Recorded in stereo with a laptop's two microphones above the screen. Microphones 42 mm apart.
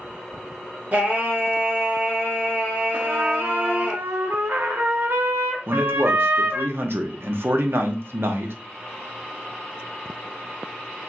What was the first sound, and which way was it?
Singing, 40° right (ahead or behind).